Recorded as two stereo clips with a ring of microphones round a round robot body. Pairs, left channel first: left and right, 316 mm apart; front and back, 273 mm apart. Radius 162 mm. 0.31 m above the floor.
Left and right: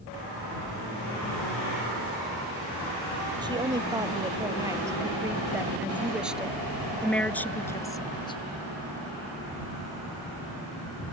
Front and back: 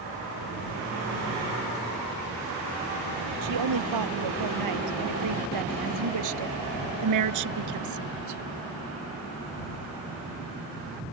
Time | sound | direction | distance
3.4 | a woman speaking | 165° right | ?